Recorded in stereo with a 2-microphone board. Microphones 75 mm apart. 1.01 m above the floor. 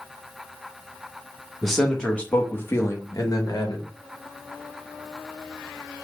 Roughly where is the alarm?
No alarm in this recording.